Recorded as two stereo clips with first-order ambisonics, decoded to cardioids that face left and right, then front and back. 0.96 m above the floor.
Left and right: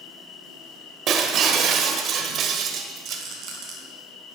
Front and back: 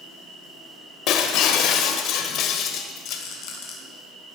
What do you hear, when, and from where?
0.0 s an insect: 95° left, 5.5 m
1.1 s breaking glass: 35° right, 1.6 m
3.1 s a rattle: 40° right, 4 m